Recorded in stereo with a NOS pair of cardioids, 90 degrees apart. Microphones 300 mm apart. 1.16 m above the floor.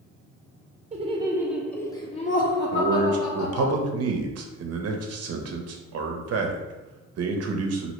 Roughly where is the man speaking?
Ahead right.